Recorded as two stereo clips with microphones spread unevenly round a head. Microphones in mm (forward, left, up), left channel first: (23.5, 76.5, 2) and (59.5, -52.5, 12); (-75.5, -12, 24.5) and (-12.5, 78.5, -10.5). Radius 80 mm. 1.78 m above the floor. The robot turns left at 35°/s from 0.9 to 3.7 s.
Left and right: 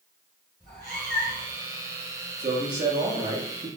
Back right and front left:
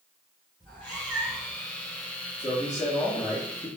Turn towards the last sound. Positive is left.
turn(degrees=-100)